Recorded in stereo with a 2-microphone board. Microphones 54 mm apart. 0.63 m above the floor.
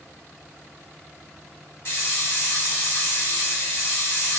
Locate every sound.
1.9 s a hiss: 50° left (ahead or behind), 1.5 m